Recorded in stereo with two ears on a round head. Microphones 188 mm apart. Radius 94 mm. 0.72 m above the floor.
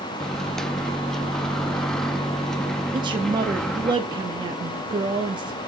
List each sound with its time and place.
0.2 s a microwave: centre (ahead or behind), 0.5 m
2.9 s a woman speaking: 20° right (ahead or behind), 0.8 m